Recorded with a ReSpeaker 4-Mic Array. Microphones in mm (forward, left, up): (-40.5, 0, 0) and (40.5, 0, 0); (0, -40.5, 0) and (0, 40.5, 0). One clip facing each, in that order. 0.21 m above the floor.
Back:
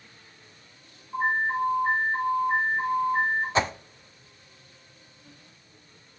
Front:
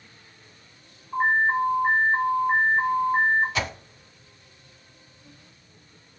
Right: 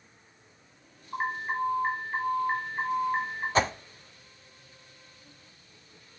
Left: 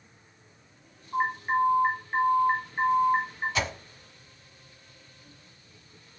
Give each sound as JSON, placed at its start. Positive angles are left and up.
{"t": 1.1, "sound": "an alarm", "azimuth_deg": 0, "distance_m": 4.5}
{"t": 3.5, "sound": "a whoosh", "azimuth_deg": -130, "distance_m": 0.5}